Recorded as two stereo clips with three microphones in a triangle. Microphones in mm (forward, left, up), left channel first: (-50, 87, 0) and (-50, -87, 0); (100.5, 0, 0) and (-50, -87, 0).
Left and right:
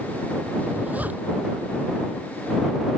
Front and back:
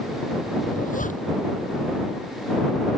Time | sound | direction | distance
0.7 | a zipper | 10° right | ?